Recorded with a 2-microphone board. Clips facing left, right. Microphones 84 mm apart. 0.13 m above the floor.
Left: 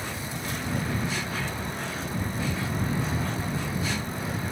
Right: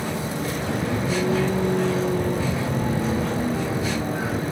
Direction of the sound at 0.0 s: 75° right (ahead or behind).